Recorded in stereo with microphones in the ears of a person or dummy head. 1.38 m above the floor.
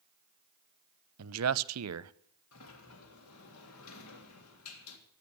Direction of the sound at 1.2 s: 80° right.